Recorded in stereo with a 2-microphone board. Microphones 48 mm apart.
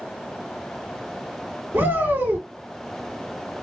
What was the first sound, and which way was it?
A shout, 45° right (ahead or behind).